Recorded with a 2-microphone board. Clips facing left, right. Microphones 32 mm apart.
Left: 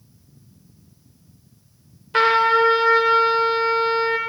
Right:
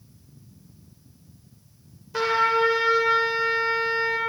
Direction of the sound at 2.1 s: 55° left (ahead or behind).